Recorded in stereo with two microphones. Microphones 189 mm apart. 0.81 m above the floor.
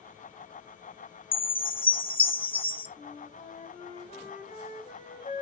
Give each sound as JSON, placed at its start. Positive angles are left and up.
{"t": 1.3, "sound": "a chime", "side_deg": 30, "distance_m": 1.2}
{"t": 3.0, "sound": "a flute", "side_deg": 40, "distance_m": 2.5}